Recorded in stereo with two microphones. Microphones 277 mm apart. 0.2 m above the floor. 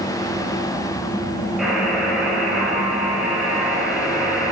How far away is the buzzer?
About 5 m.